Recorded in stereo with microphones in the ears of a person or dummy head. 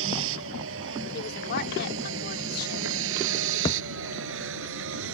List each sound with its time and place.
0.0 s a vehicle: 80° right; by 5.1 s 75° right (ahead or behind)
1.1 s a woman speaking: 55° left (ahead or behind)
3.6 s a thud: 15° left (ahead or behind)